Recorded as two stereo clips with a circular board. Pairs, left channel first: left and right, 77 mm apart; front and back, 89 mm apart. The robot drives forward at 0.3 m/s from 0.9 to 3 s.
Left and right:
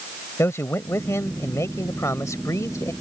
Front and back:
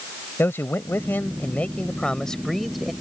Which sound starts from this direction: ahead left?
A man speaking, at 0.4 s.